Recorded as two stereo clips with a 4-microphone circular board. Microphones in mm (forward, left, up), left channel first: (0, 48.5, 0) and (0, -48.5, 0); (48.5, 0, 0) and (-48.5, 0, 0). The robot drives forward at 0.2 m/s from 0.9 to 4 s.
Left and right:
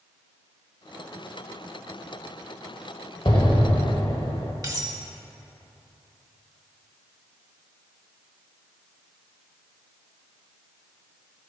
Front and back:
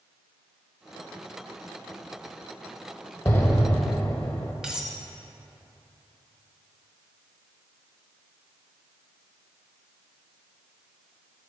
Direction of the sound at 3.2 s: 60° left.